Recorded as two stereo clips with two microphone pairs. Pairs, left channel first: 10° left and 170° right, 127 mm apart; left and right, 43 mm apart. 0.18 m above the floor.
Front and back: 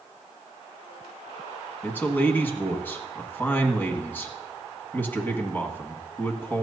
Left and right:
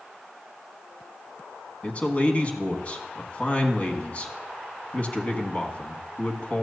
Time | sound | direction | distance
1.8 | a man speaking | 75° left | 1.3 m